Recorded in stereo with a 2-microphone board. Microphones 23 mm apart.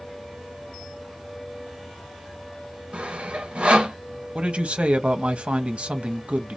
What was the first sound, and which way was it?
Sawing, 60° right (ahead or behind).